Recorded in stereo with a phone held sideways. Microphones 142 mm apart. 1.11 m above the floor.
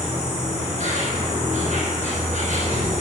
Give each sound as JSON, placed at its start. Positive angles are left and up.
{"t": 0.0, "sound": "an insect", "side_deg": -60, "distance_m": 5.5}